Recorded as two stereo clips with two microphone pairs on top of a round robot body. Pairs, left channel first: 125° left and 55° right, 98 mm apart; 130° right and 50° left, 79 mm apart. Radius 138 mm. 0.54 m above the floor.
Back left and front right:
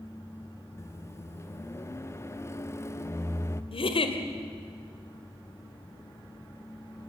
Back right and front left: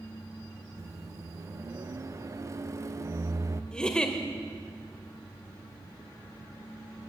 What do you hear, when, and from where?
0.8 s a microwave: 75° left, 1.2 m
3.7 s a giggle: 150° left, 1.9 m